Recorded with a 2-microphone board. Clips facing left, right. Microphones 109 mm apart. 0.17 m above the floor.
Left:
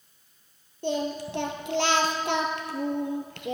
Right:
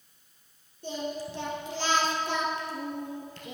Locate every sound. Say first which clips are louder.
0.8 s singing: left 6 dB; 80° left, 1.4 m